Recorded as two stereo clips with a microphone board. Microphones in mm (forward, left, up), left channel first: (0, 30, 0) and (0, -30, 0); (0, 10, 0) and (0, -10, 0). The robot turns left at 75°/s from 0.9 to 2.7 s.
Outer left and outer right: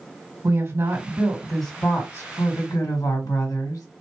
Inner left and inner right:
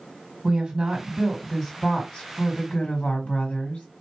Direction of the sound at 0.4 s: 130° right.